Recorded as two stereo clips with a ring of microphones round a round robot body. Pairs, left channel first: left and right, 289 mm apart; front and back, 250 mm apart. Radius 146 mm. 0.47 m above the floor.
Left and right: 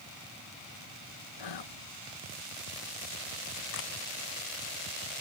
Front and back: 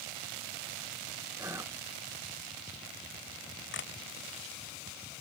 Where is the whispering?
100° left.